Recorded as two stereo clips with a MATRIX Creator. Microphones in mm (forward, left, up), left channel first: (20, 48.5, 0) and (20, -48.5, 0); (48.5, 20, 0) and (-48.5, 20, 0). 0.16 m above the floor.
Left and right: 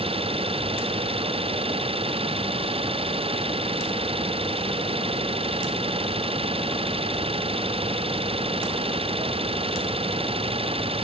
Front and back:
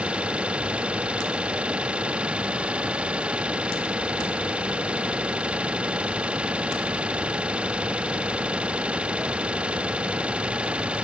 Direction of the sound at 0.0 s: 100° right.